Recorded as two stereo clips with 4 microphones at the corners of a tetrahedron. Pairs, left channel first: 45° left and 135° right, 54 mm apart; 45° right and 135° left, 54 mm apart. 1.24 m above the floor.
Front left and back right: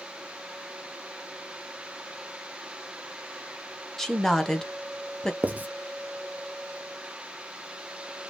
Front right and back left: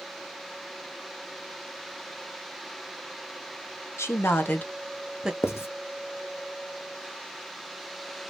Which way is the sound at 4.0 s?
35° right.